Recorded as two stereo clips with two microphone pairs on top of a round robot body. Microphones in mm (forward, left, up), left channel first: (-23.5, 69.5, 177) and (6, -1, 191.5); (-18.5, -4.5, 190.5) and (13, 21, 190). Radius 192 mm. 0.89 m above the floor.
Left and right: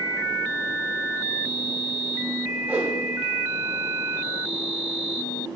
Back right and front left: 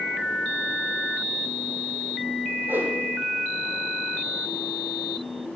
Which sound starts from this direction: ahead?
A whoosh, at 2.7 s.